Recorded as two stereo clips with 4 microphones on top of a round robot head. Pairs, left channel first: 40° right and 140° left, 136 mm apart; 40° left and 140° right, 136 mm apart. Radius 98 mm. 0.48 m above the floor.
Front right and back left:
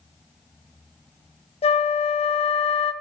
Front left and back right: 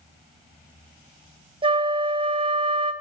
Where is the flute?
85° right, 1.0 m.